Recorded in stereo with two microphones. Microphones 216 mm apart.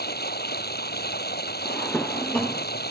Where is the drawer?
5° left (ahead or behind).